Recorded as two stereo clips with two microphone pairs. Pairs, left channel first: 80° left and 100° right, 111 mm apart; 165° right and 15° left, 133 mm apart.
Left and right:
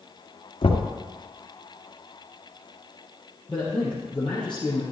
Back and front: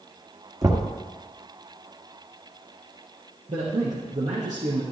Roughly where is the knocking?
Ahead left.